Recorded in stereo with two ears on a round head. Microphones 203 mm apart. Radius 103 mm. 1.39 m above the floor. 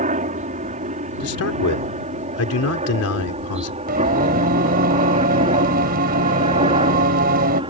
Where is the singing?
40° right (ahead or behind).